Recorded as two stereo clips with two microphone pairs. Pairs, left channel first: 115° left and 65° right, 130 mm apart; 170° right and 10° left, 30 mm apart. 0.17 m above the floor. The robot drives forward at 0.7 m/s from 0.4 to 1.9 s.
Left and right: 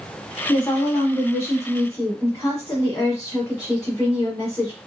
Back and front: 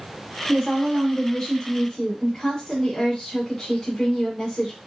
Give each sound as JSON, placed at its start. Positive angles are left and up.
{"t": 0.5, "sound": "a woman speaking", "azimuth_deg": 55, "distance_m": 1.7}